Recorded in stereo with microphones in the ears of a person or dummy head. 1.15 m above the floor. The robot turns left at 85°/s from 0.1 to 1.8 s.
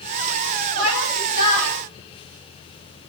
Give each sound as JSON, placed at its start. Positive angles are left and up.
{"t": 0.8, "sound": "a shout", "azimuth_deg": -80, "distance_m": 9.0}